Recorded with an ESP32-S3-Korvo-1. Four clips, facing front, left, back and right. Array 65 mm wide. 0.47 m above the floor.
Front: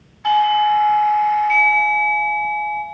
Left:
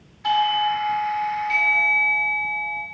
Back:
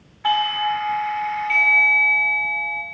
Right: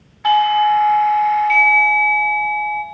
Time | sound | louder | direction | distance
0.2 | a doorbell | right 7 dB, front 6 dB | 105° right | 2 m